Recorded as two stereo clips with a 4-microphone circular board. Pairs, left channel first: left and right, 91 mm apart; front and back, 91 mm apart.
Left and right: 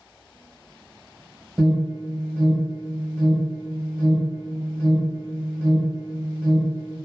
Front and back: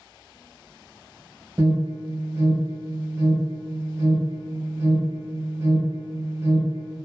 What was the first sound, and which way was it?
An alarm, 170° left.